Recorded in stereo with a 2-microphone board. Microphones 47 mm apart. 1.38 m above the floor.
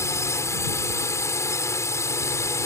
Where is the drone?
75° left (ahead or behind).